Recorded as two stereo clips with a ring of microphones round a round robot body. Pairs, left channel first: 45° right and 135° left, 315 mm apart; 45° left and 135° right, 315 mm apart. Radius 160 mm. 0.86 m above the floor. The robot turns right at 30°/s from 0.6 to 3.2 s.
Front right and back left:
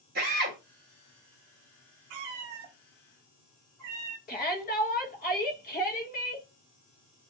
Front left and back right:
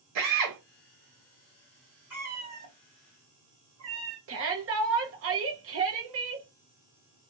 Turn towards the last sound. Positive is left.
turn(degrees=-100)